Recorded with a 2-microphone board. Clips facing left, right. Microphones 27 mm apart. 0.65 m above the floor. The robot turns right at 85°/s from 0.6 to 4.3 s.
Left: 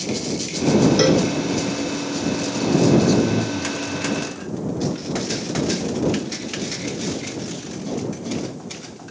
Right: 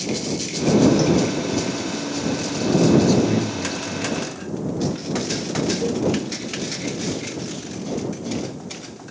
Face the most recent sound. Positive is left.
turn(degrees=-40)  # may be behind; listen again after turning